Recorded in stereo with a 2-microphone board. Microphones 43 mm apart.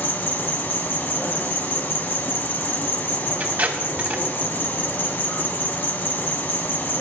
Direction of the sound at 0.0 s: 50° left (ahead or behind).